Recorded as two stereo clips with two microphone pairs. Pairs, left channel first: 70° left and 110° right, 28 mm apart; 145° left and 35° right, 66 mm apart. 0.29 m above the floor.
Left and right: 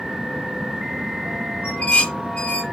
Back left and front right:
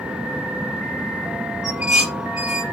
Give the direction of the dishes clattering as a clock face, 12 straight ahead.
11 o'clock.